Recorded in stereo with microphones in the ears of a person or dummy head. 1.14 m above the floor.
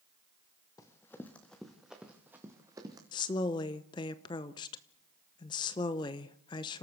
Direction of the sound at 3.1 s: 15° left (ahead or behind).